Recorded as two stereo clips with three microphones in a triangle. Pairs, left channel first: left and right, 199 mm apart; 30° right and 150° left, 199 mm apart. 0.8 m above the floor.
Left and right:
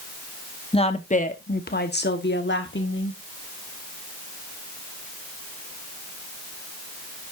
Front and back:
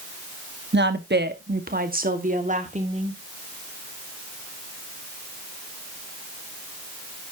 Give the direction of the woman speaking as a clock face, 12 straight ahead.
7 o'clock.